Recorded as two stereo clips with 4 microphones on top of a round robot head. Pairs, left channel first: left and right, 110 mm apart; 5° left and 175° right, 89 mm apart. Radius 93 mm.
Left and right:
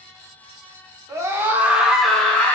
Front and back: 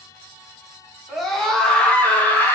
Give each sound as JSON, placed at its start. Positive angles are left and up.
{"t": 1.1, "sound": "a scream", "azimuth_deg": -85, "distance_m": 0.9}